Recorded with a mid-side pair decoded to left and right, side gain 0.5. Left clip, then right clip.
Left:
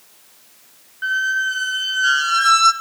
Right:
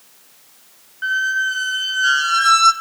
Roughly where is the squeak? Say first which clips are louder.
Right 1 dB; ahead.